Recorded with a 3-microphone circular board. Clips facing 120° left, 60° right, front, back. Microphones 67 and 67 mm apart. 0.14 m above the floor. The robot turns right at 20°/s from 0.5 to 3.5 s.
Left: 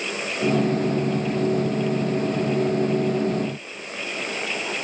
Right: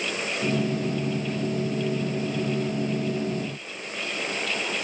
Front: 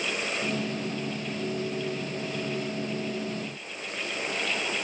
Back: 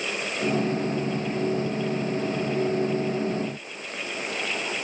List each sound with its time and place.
Only background noise.